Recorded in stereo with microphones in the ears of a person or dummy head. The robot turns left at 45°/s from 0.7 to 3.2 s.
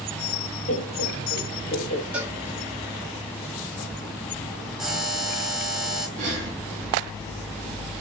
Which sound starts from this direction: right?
Breathing, at 6.2 s.